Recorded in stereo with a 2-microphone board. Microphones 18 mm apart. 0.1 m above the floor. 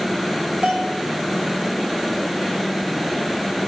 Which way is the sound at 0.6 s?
75° right (ahead or behind).